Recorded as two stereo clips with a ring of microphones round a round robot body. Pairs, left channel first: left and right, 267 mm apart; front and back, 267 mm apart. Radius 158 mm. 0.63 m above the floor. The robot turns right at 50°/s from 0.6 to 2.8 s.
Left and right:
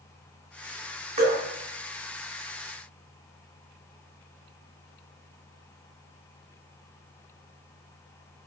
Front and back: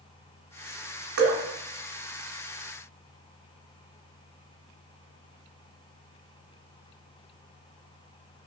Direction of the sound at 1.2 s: 160° right.